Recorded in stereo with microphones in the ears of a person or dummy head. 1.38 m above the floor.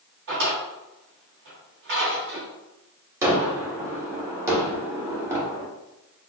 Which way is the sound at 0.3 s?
50° right (ahead or behind).